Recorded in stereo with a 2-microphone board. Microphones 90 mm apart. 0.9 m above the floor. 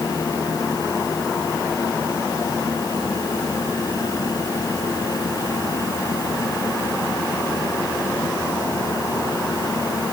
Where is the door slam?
No door slam in this recording.